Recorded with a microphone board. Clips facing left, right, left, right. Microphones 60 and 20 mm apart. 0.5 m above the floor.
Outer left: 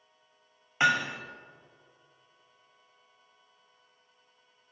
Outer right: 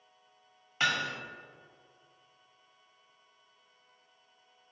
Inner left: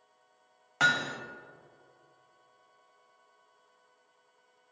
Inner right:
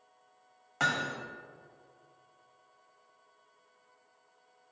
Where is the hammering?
20° left (ahead or behind), 1.2 m.